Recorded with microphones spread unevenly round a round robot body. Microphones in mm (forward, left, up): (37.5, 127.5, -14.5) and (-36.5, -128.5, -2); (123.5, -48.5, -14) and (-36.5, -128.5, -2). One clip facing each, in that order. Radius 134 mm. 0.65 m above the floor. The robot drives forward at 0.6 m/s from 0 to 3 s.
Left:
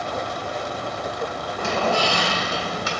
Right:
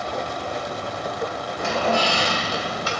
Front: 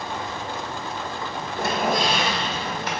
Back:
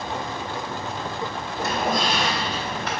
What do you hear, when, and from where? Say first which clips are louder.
1.6 s a squeak: even, front 1 dB; 30° left, 1.0 m; by 2.9 s 90° left, 0.6 m